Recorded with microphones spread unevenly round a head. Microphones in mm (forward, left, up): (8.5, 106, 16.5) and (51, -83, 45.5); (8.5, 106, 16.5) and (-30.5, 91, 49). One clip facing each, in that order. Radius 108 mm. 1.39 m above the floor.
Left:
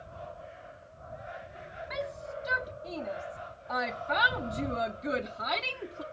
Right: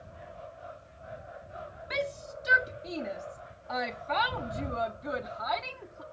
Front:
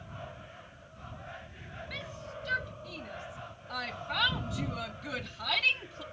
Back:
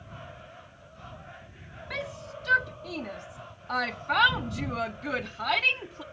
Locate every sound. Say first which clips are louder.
1.9 s a shout: right 3 dB, back 8 dB; 135° right; by 6.0 s 155° left